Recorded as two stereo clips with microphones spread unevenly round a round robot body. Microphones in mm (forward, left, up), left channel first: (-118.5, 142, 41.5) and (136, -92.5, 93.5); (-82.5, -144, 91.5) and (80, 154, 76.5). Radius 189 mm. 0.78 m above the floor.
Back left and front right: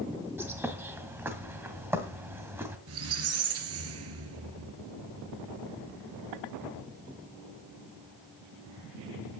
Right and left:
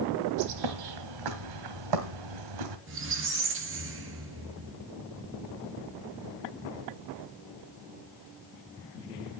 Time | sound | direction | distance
0.4 | a bird | 40° left | 1.7 m
2.9 | a squeak | 5° left | 3 m